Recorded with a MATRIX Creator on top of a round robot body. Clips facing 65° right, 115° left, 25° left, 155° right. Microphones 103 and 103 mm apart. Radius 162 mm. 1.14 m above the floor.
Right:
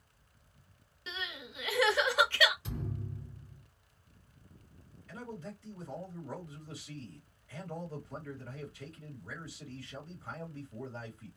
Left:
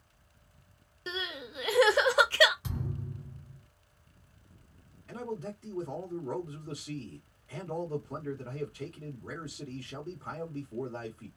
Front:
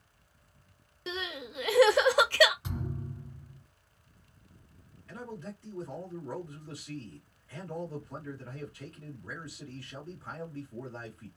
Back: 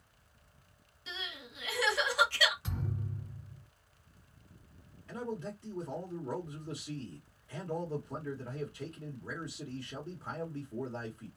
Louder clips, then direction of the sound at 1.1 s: Left 5 dB, front 8 dB; 60° left.